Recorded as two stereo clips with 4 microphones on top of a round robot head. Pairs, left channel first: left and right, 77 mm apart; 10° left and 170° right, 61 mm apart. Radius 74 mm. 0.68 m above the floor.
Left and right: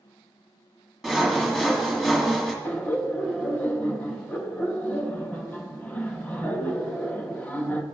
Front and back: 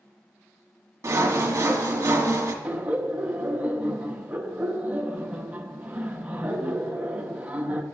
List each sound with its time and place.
1.0 s sawing: straight behind, 1.5 m
2.6 s laughter: 140° left, 1.0 m